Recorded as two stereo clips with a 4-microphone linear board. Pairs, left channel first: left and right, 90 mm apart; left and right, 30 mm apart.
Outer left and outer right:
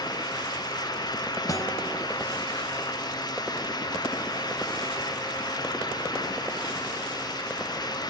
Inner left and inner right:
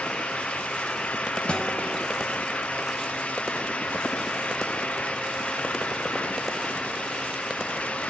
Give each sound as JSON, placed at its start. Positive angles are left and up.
{"t": 1.5, "sound": "a guitar", "side_deg": 40, "distance_m": 4.0}